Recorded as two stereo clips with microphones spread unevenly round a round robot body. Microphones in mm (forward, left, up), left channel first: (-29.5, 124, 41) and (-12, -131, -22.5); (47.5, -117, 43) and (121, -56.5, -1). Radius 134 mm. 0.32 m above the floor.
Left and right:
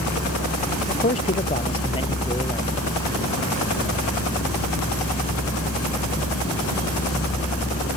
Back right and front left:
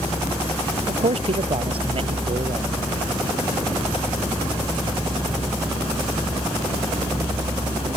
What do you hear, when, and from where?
0.9 s a man speaking: 30° left; by 2.7 s 15° left